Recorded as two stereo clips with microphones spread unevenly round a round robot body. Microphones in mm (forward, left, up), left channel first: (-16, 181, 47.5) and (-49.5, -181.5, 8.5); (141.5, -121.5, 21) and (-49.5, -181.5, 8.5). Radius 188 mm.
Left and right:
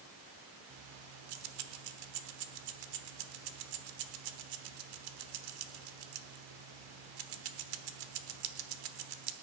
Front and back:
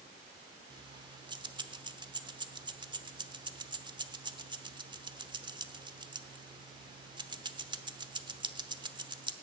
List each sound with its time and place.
0.7 s keys jangling: 95° right, 1.1 m